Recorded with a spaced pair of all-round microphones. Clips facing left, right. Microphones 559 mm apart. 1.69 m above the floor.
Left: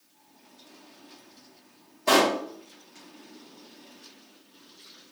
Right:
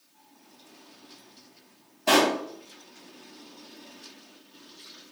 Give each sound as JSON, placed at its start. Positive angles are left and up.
{"t": 2.1, "sound": "a pop", "side_deg": -15, "distance_m": 1.0}